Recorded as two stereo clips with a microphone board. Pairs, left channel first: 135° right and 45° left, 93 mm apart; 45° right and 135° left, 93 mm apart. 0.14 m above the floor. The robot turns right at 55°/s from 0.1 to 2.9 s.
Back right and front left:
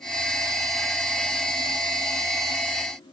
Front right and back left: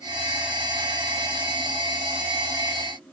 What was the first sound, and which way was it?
Only background noise.